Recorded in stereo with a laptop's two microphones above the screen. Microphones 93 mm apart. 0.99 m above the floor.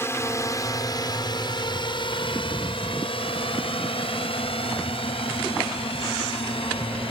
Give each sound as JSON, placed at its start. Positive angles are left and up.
{"t": 0.0, "sound": "a drone", "side_deg": 25}